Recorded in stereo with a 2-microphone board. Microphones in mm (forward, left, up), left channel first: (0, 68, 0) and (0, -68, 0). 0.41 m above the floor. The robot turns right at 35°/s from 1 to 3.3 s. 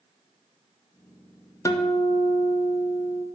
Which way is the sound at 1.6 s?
45° left.